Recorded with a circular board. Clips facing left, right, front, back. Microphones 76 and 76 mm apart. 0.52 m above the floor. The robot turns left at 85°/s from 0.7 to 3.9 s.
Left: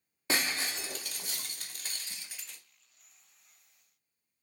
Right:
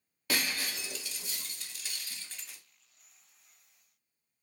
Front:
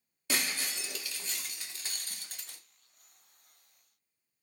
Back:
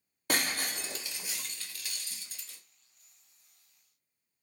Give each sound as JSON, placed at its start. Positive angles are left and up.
{"t": 0.3, "sound": "breaking glass", "azimuth_deg": 150, "distance_m": 0.7}